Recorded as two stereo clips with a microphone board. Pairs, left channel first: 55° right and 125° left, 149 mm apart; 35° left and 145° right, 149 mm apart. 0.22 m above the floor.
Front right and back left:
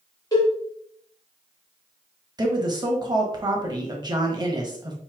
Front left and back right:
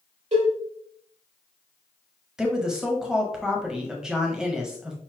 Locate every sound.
0.3 s a cowbell: 115° right, 3 m
2.4 s a woman speaking: 130° left, 1.0 m